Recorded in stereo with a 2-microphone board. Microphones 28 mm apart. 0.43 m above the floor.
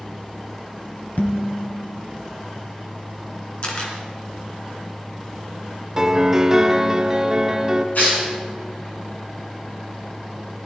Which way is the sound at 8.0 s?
70° left (ahead or behind).